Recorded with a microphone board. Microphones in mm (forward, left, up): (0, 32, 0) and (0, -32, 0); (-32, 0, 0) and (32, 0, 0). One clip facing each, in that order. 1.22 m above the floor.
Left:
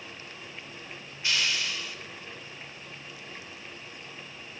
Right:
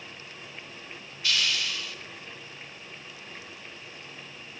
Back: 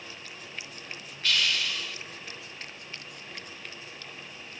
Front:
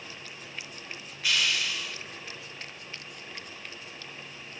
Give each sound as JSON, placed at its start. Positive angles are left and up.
{"t": 1.2, "sound": "a hiss", "azimuth_deg": 70, "distance_m": 1.0}